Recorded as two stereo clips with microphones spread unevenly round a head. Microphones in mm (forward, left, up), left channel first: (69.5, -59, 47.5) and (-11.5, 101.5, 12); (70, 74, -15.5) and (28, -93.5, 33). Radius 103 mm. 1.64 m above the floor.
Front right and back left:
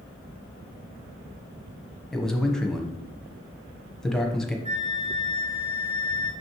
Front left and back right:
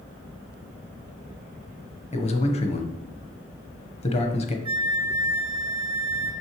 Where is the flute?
125° left, 1.5 m.